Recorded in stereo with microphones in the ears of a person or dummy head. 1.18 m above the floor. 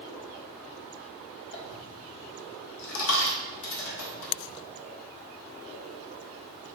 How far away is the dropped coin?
About 1.5 m.